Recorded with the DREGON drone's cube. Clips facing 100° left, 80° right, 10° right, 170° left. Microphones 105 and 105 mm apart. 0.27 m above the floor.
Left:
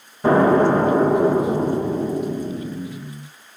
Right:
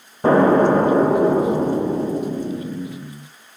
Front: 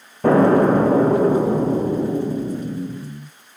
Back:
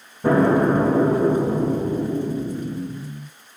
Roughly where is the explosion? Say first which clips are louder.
Right 1 dB, front 3 dB; ahead.